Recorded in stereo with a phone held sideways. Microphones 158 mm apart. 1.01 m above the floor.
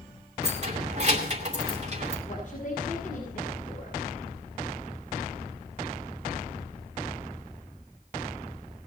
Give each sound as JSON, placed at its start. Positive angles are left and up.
{"t": 0.4, "sound": "keys jangling", "side_deg": -45, "distance_m": 2.5}
{"t": 2.3, "sound": "a woman speaking", "side_deg": 55, "distance_m": 5.5}